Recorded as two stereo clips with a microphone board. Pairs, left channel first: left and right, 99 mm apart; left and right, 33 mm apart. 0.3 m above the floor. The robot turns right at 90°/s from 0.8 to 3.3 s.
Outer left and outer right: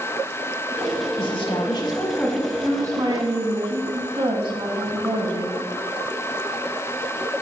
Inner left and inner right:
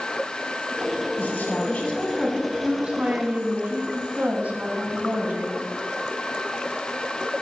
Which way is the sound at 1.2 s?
70° left.